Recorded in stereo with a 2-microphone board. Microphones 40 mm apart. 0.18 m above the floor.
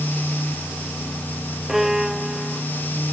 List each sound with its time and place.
1.7 s a violin: 5° right (ahead or behind)